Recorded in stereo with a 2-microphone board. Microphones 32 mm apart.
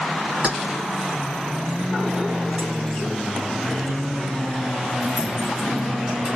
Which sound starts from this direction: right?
Keys jangling, at 0.4 s.